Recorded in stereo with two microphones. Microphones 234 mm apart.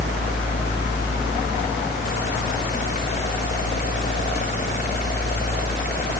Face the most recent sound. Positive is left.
No sound to turn to.